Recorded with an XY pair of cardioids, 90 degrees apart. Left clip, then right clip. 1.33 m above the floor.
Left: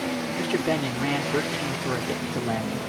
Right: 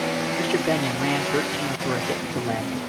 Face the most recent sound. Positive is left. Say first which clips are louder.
# right 1 dB
turn(degrees=-5)